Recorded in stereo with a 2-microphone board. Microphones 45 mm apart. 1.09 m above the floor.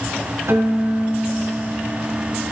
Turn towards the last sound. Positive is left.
turn(degrees=-80)